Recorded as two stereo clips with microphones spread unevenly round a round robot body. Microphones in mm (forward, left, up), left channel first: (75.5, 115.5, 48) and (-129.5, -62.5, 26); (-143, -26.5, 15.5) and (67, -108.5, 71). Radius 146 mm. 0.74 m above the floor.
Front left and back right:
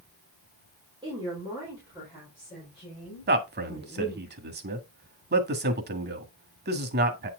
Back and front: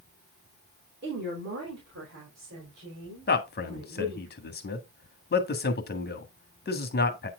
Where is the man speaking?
Straight behind, 1.6 m.